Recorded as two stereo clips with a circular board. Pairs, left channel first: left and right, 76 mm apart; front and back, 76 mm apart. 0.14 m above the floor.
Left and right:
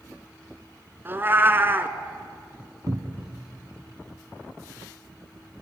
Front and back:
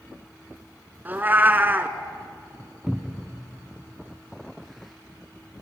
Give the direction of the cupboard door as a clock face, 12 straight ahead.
3 o'clock.